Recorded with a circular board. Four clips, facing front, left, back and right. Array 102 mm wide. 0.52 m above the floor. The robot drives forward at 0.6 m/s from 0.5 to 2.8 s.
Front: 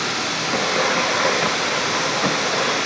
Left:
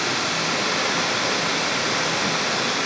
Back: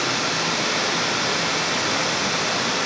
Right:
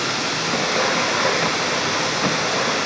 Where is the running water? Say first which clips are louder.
Right 1 dB, even; 150° right, 5.5 m; by 2.9 s 155° right, 6.5 m.